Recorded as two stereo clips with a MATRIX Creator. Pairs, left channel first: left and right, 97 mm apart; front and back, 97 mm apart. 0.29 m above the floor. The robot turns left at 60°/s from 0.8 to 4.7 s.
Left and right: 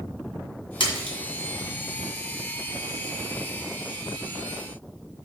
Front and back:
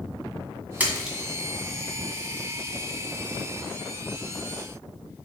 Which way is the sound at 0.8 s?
110° left.